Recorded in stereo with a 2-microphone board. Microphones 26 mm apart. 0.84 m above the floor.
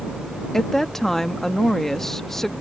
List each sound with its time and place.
0.5 s a woman speaking: 15° left (ahead or behind)